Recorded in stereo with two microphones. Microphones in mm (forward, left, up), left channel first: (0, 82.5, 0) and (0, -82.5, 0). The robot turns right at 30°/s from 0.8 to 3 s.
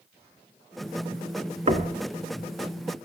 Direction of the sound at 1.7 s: 45° right (ahead or behind).